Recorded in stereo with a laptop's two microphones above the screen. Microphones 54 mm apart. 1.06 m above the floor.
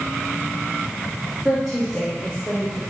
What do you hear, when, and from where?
1.4 s a woman speaking: 5° right (ahead or behind), 1.6 m; by 2.8 s 25° left (ahead or behind), 3 m